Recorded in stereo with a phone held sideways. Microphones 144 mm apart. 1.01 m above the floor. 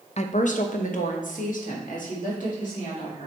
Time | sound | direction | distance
0.2 | a woman speaking | 55° left (ahead or behind) | 0.5 m